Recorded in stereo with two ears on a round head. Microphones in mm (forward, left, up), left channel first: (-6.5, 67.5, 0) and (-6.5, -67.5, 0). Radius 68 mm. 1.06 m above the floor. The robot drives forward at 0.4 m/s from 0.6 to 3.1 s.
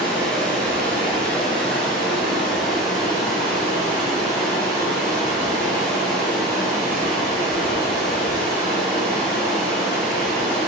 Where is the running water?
10° left (ahead or behind), 1.9 m; by 10.7 s 5° left (ahead or behind), 3 m.